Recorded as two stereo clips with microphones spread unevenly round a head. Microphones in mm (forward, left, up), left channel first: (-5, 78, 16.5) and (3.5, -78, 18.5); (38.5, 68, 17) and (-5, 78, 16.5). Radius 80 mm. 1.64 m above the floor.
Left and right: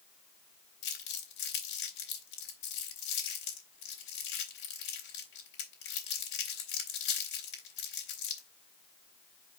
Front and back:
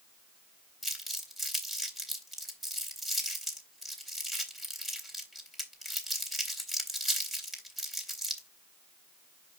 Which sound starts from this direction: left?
Crumpling, at 0.8 s.